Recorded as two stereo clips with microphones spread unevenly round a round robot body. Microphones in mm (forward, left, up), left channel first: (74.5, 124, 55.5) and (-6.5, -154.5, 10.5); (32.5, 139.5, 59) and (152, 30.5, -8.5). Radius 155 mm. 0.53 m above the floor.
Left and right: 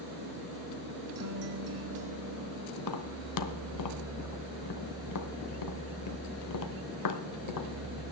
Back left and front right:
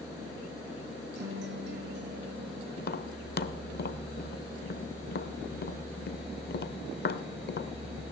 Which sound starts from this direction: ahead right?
A guitar, at 1.1 s.